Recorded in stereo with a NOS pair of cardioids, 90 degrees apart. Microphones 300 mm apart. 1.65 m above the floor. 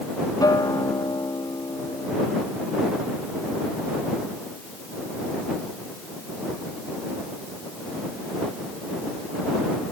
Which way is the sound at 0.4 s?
15° left.